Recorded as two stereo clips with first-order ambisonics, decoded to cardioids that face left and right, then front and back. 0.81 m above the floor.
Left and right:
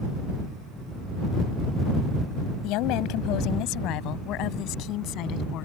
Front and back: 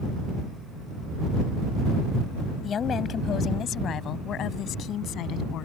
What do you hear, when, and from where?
2.6 s a woman speaking: 65° left; by 5.7 s 50° left